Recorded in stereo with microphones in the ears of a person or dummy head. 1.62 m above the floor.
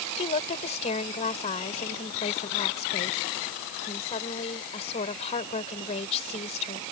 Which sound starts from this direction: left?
A woman speaking, at 0.2 s.